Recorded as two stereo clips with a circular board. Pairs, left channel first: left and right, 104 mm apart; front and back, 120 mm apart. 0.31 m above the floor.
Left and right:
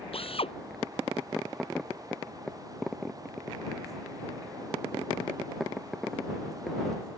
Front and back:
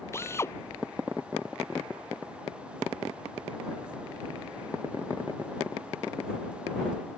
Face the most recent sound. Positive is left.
turn(degrees=65)